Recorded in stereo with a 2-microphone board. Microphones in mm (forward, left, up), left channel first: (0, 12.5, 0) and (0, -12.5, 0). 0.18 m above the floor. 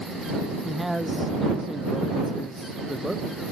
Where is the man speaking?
Centre (ahead or behind).